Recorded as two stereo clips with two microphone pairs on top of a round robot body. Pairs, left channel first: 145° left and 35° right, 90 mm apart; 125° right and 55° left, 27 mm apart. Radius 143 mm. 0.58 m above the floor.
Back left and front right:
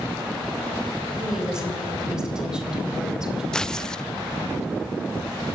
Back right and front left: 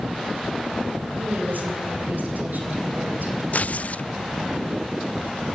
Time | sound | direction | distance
1.2 | a woman speaking | 45° left | 4 m
3.5 | tearing paper | 140° right | 0.6 m